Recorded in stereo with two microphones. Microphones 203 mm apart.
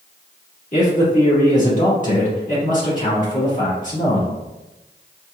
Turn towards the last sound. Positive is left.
turn(degrees=40)  # may be behind; listen again after turning